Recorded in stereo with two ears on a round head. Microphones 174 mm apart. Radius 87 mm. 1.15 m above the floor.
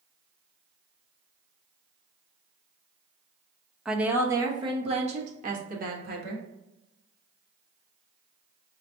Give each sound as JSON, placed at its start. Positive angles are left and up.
{"t": 3.9, "sound": "a woman speaking", "side_deg": 0, "distance_m": 0.9}